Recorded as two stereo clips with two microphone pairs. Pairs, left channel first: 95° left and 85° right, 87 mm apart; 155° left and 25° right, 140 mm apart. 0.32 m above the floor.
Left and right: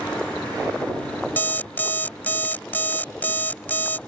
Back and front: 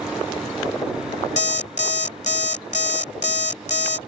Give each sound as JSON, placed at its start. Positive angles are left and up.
{"t": 1.4, "sound": "an alarm clock", "azimuth_deg": 160}